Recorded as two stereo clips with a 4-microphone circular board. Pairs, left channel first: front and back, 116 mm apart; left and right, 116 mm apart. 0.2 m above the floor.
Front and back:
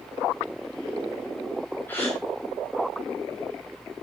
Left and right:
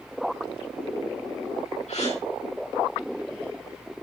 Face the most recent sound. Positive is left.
turn(degrees=75)